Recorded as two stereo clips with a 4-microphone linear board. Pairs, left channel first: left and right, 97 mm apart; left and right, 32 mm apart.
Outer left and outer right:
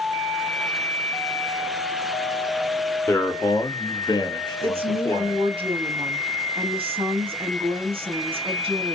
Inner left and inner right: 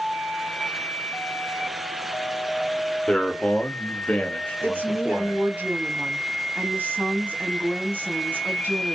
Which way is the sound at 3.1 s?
25° left (ahead or behind).